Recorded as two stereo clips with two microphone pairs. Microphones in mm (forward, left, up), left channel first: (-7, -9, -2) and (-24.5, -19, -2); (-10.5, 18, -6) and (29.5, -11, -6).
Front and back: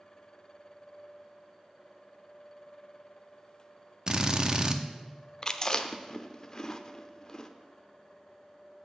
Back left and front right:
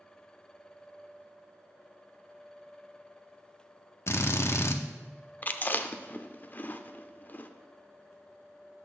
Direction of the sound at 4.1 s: 160° left.